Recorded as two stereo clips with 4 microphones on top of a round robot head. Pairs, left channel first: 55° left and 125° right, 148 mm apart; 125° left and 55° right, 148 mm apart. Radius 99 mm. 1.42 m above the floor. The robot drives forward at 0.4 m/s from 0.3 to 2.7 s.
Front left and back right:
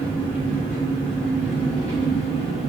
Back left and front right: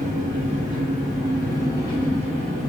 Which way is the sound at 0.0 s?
5° left.